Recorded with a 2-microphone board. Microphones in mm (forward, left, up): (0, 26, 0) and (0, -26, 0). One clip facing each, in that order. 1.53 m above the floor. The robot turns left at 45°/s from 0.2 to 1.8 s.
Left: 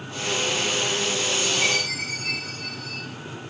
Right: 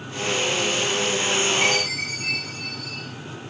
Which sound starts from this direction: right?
A chime, at 1.6 s.